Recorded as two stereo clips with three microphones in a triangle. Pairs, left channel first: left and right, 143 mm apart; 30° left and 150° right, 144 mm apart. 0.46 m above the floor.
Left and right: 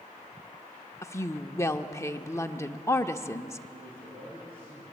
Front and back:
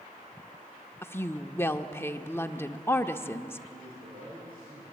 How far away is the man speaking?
About 8.5 m.